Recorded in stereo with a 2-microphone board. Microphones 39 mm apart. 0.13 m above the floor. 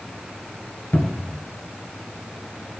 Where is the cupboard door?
50° left (ahead or behind), 1.6 m.